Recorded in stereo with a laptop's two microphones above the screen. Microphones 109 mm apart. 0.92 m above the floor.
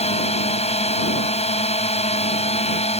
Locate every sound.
0.0 s a drone: 70° left (ahead or behind)